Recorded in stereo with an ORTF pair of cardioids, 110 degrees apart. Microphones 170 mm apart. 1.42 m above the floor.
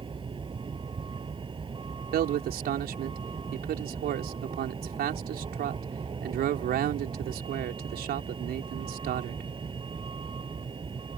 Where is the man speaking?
65° right.